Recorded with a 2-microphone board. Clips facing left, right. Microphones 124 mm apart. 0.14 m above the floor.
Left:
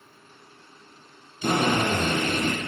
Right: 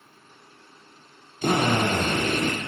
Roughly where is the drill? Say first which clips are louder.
Right 1 dB; right.